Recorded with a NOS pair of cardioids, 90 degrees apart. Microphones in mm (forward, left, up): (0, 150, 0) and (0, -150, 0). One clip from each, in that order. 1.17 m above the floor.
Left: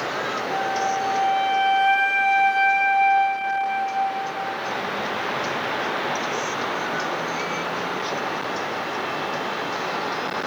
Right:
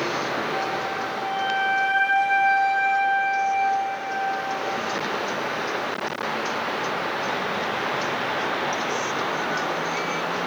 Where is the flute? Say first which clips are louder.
Left 3 dB; 40° left, 1.8 m.